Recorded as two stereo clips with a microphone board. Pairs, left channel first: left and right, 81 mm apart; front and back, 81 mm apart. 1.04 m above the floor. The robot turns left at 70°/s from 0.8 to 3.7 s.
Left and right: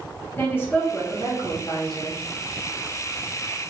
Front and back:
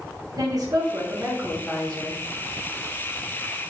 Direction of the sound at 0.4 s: 150° left.